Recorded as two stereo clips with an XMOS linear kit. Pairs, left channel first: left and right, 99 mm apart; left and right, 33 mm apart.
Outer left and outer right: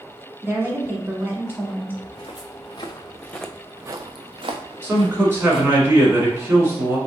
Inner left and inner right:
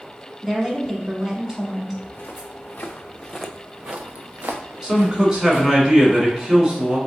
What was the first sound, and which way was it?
A woman speaking, 20° right (ahead or behind).